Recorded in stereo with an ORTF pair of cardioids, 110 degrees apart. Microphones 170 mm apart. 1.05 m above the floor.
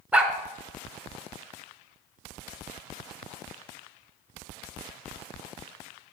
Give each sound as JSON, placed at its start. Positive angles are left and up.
{"t": 0.1, "sound": "a dog barking", "azimuth_deg": -10, "distance_m": 2.5}